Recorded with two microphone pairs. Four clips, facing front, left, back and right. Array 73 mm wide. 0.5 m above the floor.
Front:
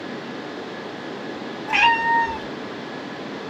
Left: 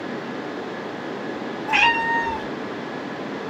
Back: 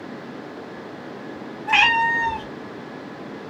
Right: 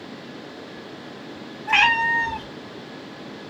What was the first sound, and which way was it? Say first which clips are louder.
A cat meowing: right 1 dB, even; 135° right.